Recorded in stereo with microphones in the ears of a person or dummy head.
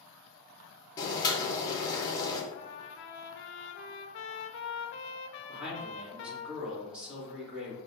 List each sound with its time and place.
1.0 s boiling: 25° left (ahead or behind), 1.0 m
2.5 s a trumpet: 60° left (ahead or behind), 0.6 m
5.5 s a man speaking: 5° right (ahead or behind), 1.7 m